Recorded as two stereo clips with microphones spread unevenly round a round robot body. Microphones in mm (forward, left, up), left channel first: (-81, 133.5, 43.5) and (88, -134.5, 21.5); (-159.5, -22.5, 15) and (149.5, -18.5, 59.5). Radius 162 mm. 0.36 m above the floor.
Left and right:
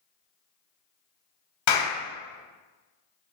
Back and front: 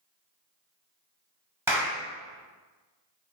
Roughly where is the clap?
Left.